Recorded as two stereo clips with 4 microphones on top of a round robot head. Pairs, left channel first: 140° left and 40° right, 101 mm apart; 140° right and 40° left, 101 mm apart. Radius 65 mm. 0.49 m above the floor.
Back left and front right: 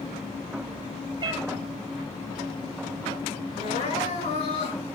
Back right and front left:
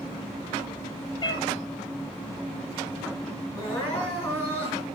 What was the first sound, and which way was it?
A cat meowing, 90° right.